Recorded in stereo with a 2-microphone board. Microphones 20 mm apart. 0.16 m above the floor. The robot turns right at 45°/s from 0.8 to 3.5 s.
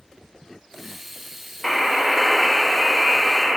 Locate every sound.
1.6 s a buzzer: 15° left (ahead or behind), 0.6 m; by 3.6 s 20° right (ahead or behind), 0.6 m